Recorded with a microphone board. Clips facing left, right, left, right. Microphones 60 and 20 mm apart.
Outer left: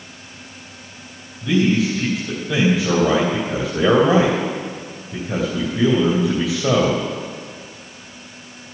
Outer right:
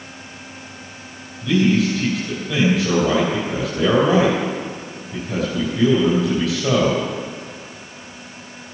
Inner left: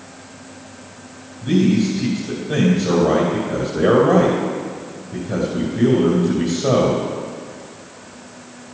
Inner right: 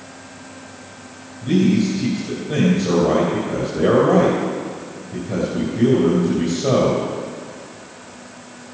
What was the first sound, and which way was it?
A man speaking, 25° left (ahead or behind).